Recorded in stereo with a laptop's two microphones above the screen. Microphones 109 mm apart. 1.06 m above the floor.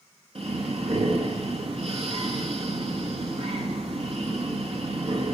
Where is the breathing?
70° right (ahead or behind), 2 m.